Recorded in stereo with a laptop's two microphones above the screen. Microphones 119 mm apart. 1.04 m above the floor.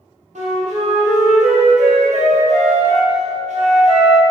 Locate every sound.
0.3 s a flute: 70° right (ahead or behind), 0.8 m